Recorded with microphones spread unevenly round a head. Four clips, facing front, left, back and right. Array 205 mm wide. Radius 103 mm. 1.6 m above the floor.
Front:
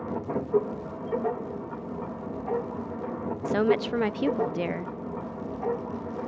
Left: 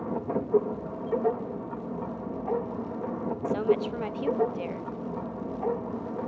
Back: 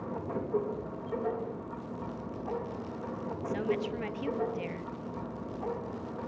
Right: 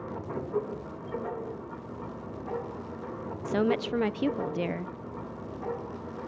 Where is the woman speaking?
55° right, 0.7 m.